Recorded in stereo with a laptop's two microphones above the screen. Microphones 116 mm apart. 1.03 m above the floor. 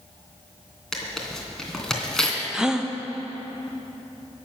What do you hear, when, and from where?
0.9 s tearing paper: 5° left (ahead or behind), 2.5 m
2.5 s a gasp: 5° right (ahead or behind), 0.5 m